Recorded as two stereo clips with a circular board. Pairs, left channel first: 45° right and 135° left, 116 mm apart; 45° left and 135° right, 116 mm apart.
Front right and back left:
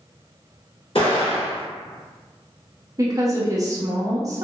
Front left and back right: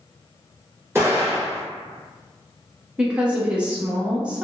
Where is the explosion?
70° right, 1.6 m.